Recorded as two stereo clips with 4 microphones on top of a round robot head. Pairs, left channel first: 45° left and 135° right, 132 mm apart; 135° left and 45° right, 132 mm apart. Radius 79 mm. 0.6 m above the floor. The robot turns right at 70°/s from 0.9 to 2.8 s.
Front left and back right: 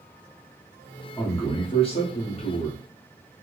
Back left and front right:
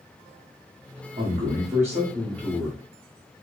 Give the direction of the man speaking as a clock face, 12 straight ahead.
1 o'clock.